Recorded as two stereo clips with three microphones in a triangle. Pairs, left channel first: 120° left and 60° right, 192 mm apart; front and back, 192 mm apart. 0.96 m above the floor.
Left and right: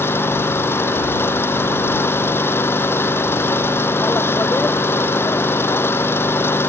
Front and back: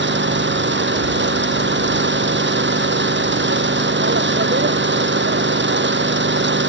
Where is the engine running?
160° right.